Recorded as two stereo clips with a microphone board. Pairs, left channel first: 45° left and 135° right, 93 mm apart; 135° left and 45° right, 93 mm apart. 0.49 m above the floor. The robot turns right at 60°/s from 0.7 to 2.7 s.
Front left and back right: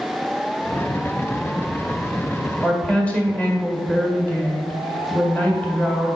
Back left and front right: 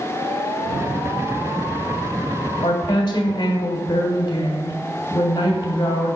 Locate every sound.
2.6 s a woman speaking: 115° left, 1.6 m; by 6.2 s 120° left, 1.6 m